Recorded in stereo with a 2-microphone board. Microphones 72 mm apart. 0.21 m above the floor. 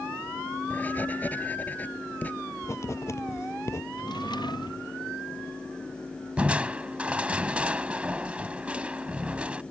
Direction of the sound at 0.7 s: 25° left (ahead or behind).